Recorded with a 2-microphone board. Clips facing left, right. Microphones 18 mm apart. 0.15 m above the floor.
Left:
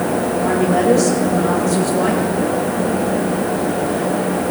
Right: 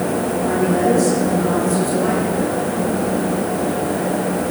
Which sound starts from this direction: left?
A woman speaking, at 0.4 s.